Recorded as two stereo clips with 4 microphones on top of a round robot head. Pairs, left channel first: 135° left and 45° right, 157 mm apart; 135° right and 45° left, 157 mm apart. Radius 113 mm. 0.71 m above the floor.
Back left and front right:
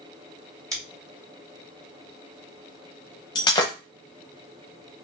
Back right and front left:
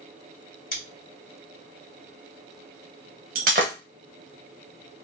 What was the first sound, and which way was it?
Scissors, 115° right.